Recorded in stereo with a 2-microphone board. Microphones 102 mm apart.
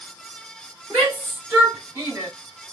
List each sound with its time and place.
0.9 s a shout: 10° right (ahead or behind), 2 m; by 2.3 s 30° right (ahead or behind), 2.0 m